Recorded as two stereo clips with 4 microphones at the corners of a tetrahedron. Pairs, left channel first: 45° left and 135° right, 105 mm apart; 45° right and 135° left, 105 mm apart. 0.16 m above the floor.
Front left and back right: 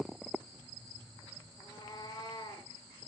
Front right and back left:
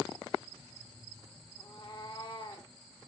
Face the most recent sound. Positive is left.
turn(degrees=0)